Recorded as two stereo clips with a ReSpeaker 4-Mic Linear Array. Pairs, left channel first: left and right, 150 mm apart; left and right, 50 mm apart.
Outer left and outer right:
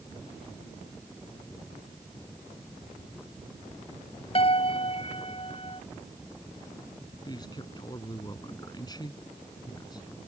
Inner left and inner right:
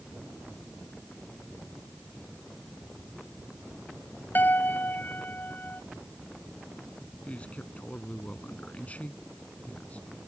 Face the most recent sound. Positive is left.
turn(degrees=30)  # may be behind; listen again after turning